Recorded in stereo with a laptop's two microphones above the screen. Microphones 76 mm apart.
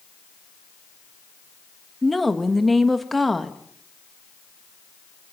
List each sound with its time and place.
2.0 s a woman speaking: centre (ahead or behind), 1.3 m